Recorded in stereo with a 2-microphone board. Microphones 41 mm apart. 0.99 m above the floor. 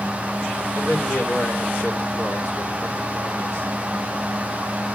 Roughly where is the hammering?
I don't hear hammering.